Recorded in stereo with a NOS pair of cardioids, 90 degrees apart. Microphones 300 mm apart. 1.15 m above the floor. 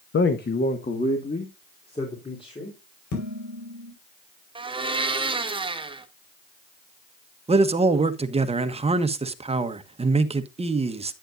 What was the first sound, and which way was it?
A man speaking, 40° left.